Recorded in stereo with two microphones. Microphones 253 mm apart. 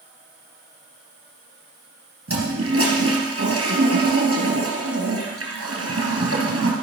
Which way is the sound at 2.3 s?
65° right (ahead or behind).